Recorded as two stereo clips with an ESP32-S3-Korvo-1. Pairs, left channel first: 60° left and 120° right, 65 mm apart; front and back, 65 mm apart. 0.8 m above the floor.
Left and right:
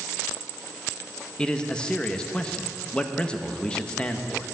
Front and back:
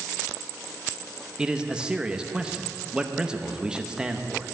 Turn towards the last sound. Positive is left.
turn(degrees=115)